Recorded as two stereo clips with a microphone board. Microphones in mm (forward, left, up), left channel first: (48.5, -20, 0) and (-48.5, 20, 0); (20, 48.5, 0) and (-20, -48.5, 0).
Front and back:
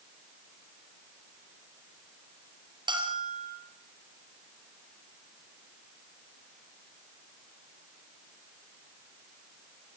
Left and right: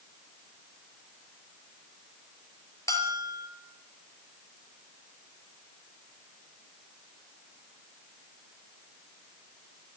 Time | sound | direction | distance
2.9 | a bell | 125° left | 3.5 m